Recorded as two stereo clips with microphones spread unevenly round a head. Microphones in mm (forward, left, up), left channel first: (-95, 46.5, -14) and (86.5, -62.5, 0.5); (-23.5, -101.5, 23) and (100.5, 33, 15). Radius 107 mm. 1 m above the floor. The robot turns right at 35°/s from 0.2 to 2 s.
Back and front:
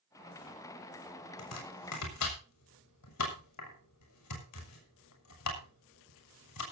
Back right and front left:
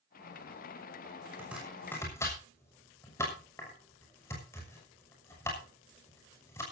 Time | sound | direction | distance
1.4 | chopping | 130° left | 6.5 m